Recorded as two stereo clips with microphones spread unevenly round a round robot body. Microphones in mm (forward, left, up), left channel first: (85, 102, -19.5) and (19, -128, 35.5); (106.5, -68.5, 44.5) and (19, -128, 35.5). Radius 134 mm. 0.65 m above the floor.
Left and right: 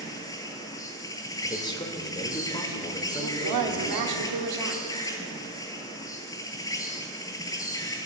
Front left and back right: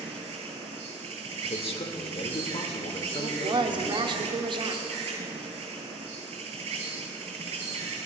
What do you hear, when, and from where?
0.0 s an insect: 160° left, 1.0 m
1.4 s a man speaking: 5° left, 1.9 m
3.1 s a woman speaking: 115° right, 1.8 m